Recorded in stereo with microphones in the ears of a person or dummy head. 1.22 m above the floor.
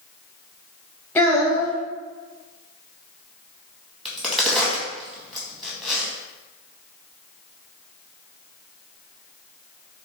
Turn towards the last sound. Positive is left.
turn(degrees=-5)  # may be behind; listen again after turning